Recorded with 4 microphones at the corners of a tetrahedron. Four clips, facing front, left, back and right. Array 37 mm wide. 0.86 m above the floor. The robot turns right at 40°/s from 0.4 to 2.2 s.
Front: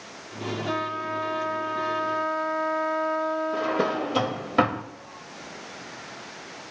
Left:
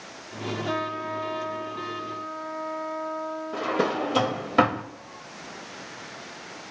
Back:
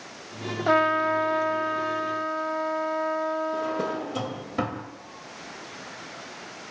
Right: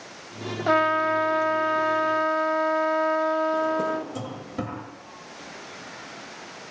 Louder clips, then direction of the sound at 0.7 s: Right 11 dB, back 10 dB; 135° right.